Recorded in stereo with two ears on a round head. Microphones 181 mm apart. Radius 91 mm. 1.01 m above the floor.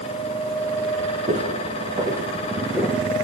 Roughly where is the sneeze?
I don't hear a sneeze.